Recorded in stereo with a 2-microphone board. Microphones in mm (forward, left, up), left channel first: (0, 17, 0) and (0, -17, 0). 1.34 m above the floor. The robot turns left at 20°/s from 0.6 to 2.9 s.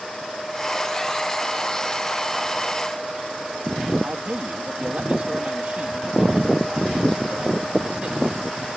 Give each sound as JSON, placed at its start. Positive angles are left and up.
{"t": 4.0, "sound": "a man speaking", "side_deg": -50}